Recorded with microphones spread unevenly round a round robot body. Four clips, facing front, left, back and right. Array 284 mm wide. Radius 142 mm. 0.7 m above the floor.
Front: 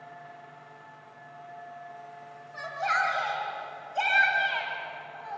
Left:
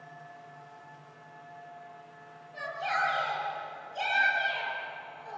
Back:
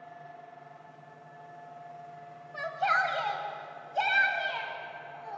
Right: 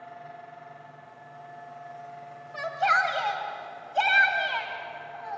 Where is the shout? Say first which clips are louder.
Right 7 dB, even; 80° right, 4 m; by 5.4 s 50° right, 5 m.